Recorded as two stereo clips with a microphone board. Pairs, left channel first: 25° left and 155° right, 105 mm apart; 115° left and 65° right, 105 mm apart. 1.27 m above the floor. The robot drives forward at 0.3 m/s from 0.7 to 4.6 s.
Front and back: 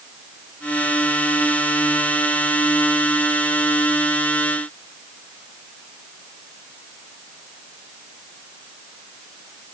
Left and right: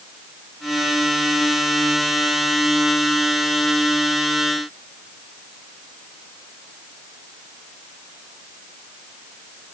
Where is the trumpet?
No trumpet in this recording.